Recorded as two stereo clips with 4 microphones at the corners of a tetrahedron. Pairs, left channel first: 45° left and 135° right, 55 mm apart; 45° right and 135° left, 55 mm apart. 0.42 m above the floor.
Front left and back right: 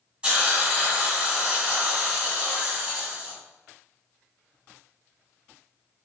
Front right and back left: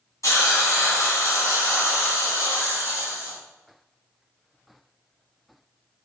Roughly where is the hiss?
Right.